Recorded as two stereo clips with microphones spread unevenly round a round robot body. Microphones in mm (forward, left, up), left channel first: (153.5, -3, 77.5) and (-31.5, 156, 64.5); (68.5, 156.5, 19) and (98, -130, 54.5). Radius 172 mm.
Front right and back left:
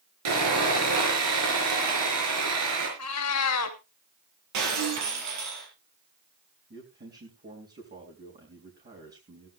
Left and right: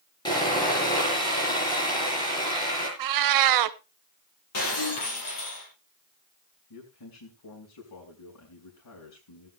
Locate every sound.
0.2 s sawing: 175° left, 5 m
3.0 s a cat meowing: 85° right, 0.6 m
4.5 s breaking glass: 145° left, 5.5 m
6.7 s a man speaking: 90° left, 4.5 m